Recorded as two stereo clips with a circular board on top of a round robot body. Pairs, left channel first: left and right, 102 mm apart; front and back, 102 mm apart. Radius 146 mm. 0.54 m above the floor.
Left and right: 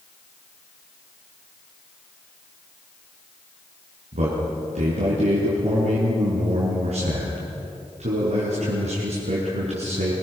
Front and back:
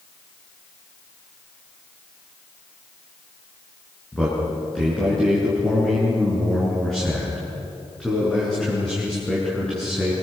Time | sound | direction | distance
4.1 | a man speaking | 85° right | 7 m